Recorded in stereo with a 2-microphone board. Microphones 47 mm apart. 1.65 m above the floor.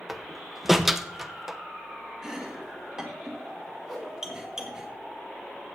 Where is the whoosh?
5° right (ahead or behind), 3.5 m.